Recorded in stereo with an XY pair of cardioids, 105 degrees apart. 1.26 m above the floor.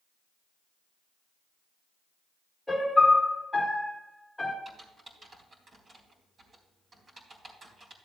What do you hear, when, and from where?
2.7 s a piano: 10° left, 2 m
4.7 s typing on a keyboard: 40° right, 3.5 m